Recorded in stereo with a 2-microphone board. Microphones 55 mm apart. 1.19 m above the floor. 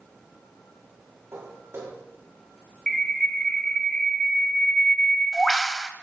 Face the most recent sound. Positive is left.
turn(degrees=15)  # may be behind; listen again after turning